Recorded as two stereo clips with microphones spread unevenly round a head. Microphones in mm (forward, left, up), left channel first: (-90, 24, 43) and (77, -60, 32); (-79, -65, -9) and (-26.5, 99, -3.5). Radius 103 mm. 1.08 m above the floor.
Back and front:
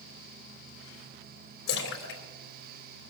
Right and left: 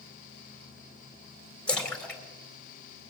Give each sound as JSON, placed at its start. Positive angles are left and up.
{"t": 1.7, "sound": "a splash", "azimuth_deg": 170, "distance_m": 3.0}